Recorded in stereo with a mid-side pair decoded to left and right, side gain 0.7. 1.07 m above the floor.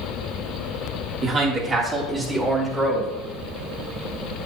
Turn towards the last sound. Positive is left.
turn(degrees=-15)